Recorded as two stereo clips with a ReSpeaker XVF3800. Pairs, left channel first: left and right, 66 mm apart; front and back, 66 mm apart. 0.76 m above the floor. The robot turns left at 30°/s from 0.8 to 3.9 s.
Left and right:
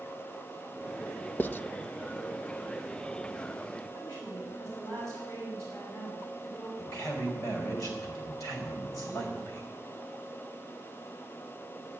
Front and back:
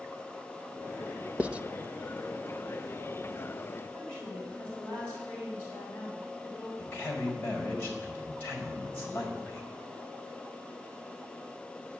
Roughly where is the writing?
Behind left.